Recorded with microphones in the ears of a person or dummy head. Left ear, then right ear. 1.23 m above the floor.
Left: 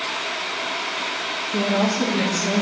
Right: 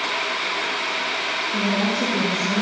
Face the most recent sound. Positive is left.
turn(degrees=40)  # may be behind; listen again after turning